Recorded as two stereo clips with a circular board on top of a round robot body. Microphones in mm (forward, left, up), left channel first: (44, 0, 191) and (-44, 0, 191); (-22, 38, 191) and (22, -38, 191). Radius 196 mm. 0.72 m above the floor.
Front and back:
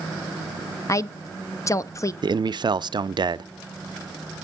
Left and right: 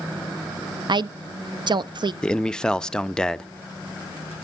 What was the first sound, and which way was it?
A woman speaking, 45° right.